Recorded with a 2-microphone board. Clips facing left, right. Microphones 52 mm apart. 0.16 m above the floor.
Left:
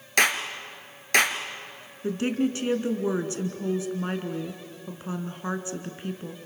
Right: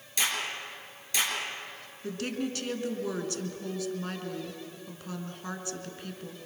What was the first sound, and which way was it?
A clap, 65° left (ahead or behind).